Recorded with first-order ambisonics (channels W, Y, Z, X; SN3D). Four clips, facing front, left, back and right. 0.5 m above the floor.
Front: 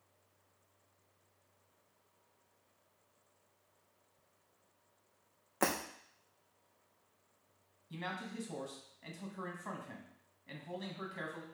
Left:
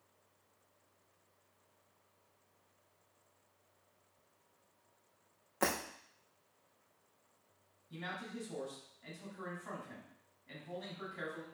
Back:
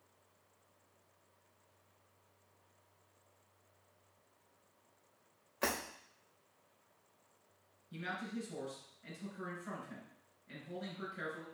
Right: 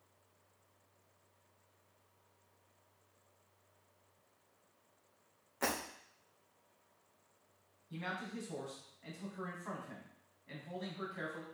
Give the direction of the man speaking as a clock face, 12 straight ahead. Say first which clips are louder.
Right 2 dB, even; 12 o'clock.